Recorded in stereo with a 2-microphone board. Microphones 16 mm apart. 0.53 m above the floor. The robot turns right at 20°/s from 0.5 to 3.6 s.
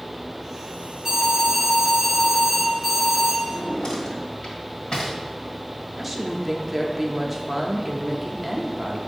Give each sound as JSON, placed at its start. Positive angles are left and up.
{"t": 1.1, "sound": "an alarm", "azimuth_deg": -20, "distance_m": 2.5}
{"t": 3.4, "sound": "a drawer", "side_deg": 55, "distance_m": 1.7}
{"t": 6.0, "sound": "a woman speaking", "side_deg": -10, "distance_m": 0.7}